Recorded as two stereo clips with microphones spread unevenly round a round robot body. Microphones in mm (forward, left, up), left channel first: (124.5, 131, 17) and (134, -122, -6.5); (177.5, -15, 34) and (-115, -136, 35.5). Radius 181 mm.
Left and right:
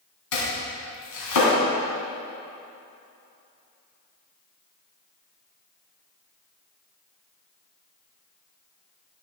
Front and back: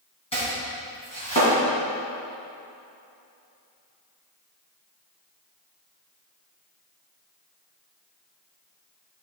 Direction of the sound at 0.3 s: 95° left.